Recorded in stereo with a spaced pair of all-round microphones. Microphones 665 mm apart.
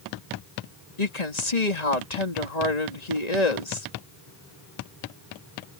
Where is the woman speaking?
75° left (ahead or behind).